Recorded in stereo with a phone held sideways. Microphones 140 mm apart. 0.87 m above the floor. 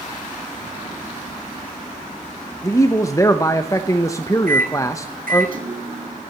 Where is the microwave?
75° right (ahead or behind), 1.4 m.